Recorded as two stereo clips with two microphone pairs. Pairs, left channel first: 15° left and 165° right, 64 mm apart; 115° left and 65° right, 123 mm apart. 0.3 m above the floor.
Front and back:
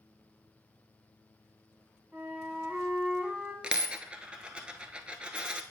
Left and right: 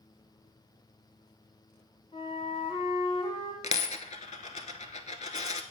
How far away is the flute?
About 1.3 m.